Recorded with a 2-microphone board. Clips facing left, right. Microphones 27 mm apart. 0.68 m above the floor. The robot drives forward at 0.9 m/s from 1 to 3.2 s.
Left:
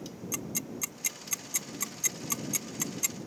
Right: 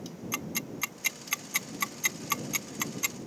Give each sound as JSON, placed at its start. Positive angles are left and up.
{"t": 0.3, "sound": "ticking", "side_deg": -35}